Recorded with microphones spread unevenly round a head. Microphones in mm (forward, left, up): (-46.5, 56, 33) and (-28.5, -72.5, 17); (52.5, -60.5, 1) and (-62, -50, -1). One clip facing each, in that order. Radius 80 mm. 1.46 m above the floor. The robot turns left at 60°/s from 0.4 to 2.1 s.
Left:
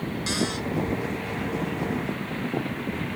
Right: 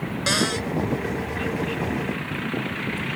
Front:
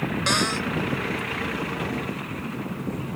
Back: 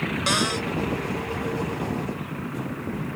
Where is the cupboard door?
105° right; by 0.7 s 120° right.